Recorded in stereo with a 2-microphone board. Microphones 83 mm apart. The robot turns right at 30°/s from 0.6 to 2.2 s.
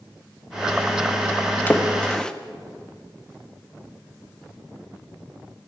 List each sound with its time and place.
1.7 s a splash: 20° left (ahead or behind), 0.5 m; by 2.3 s 10° left (ahead or behind), 0.5 m